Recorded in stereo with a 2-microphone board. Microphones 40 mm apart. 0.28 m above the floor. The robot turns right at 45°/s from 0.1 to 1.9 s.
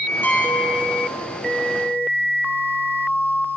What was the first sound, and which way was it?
A piano, 115° left.